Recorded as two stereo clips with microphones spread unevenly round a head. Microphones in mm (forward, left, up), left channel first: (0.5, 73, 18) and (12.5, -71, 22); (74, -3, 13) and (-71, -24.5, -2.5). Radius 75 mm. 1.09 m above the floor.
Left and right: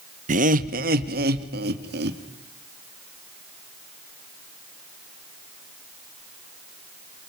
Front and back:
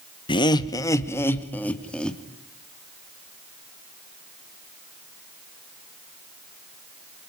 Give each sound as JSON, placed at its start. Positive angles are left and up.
{"t": 0.3, "sound": "laughter", "azimuth_deg": -50, "distance_m": 1.6}